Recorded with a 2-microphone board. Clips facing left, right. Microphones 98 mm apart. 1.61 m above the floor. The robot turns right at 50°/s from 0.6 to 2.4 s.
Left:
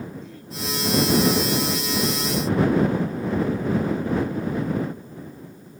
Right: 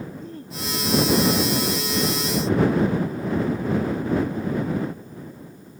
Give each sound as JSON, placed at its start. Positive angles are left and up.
{"t": 0.2, "sound": "throat clearing", "side_deg": -40}